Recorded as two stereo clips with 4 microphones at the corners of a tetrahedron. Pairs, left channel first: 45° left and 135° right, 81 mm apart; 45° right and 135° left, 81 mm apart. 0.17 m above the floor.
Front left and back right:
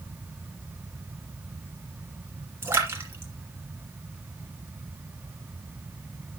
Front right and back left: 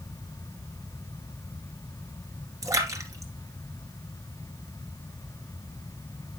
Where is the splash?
170° left, 2.0 m.